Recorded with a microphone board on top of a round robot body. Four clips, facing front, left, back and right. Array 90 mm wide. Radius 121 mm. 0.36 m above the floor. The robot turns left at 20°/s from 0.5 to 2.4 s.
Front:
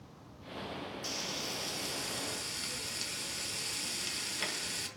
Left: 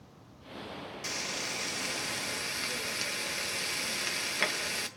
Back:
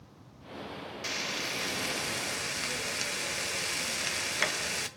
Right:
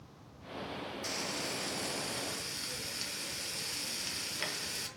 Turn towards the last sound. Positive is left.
turn(degrees=145)